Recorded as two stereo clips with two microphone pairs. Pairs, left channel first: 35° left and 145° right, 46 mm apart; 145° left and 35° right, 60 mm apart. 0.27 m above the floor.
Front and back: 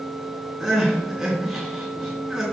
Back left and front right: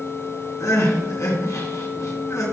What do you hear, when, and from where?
0.6 s crying: 135° left, 4.5 m